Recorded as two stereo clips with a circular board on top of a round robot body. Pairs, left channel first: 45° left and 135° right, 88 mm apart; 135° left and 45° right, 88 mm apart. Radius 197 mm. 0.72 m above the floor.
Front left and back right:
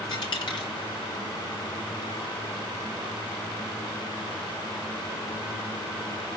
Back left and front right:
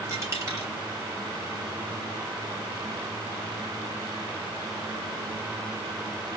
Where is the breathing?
No breathing in this recording.